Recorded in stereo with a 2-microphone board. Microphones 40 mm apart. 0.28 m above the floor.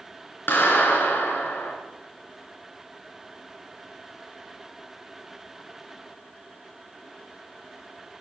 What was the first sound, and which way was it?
A clap, 65° left (ahead or behind).